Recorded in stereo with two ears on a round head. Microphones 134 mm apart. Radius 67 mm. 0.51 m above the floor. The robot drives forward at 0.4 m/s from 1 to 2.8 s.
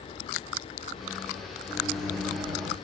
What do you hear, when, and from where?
1.7 s a microwave: centre (ahead or behind), 0.8 m